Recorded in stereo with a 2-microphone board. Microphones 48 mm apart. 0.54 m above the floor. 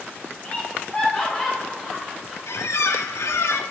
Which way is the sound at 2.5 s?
75° left (ahead or behind).